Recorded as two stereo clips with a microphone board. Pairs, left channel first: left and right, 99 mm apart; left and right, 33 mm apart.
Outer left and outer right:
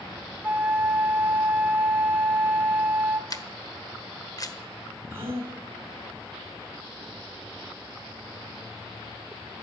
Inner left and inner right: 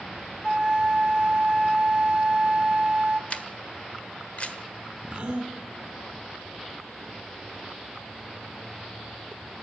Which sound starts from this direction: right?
A gasp, at 5.1 s.